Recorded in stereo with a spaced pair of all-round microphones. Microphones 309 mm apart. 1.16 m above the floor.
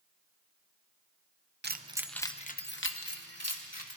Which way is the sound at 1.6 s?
35° right (ahead or behind).